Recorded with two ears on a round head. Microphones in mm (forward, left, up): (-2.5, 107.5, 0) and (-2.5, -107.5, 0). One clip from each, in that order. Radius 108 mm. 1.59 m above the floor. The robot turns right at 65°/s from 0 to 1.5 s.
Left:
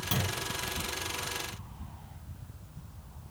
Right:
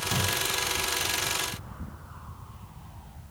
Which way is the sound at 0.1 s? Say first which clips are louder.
Right 5 dB; 30° left (ahead or behind).